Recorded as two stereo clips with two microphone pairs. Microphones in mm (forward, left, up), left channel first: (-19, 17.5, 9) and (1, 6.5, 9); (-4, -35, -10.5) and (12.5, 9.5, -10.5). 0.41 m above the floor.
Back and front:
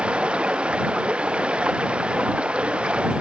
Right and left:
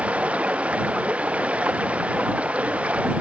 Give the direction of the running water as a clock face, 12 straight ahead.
12 o'clock.